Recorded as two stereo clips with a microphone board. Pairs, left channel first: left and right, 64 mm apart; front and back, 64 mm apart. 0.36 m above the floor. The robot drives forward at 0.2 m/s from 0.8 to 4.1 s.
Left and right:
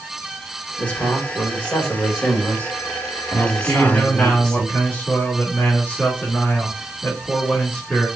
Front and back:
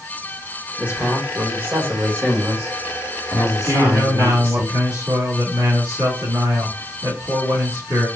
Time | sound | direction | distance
0.8 | a man speaking | 140° left | 1.4 m
3.6 | a man speaking | 160° left | 2.5 m